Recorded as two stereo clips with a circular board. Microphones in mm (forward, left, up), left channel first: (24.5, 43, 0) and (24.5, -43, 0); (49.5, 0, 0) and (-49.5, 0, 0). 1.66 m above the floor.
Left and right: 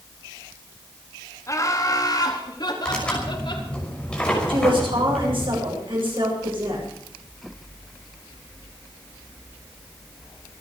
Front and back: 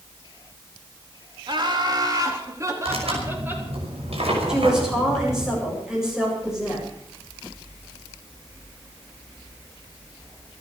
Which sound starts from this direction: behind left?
Laughter, at 1.5 s.